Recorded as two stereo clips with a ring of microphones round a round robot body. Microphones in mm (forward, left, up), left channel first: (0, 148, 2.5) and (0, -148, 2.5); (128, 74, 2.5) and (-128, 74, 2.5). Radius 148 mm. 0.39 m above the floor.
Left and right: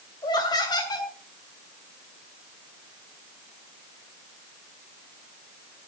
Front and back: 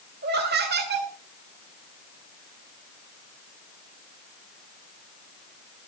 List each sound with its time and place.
0.2 s laughter: 160° left, 1.8 m